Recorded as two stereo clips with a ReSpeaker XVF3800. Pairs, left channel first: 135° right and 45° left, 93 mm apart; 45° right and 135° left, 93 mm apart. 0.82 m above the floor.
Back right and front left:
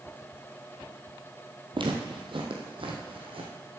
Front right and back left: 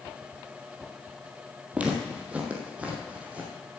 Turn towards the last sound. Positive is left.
turn(degrees=60)